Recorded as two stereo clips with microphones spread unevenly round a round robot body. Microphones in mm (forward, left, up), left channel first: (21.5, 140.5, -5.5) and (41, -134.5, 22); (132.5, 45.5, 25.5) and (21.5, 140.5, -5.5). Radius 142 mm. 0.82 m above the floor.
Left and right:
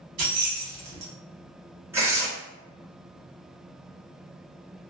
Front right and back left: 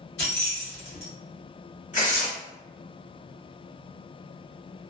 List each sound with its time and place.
0.2 s keys jangling: 55° right, 1.4 m
1.9 s tearing paper: 5° right, 1.7 m